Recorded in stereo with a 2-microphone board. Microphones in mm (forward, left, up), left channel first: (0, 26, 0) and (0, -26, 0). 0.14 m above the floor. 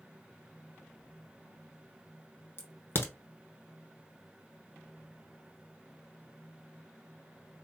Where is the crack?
45° left (ahead or behind), 0.8 m.